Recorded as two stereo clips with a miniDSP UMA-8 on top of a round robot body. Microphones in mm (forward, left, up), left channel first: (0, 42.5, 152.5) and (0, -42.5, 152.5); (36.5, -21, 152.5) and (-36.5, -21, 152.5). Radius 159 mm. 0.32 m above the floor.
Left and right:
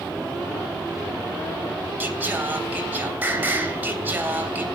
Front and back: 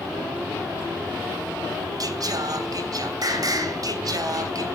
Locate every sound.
2.0 s singing: 155° right, 3 m